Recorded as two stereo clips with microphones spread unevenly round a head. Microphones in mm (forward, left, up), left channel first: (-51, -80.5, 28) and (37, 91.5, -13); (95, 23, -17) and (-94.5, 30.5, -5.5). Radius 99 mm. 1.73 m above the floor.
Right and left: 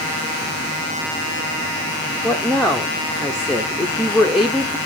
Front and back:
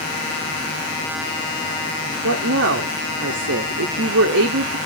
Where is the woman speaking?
155° left, 0.9 m.